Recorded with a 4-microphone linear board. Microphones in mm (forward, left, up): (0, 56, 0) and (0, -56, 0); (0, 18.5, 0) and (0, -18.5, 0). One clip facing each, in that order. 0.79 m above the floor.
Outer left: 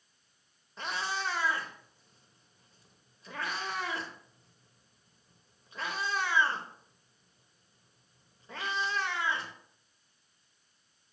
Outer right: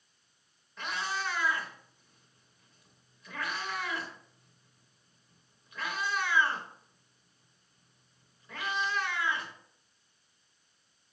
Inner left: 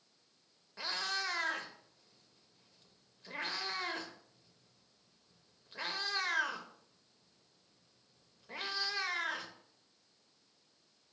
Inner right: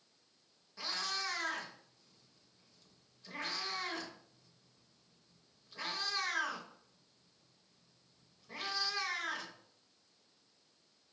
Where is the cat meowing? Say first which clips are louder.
Even, inner left 2 dB; 30° left (ahead or behind), 0.7 m.